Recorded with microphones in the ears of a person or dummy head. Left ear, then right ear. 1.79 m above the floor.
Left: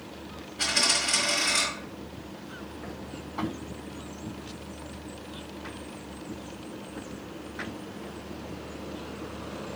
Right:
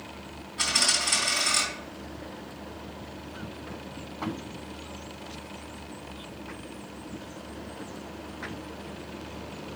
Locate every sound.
0.6 s a dropped coin: 60° right (ahead or behind), 3.5 m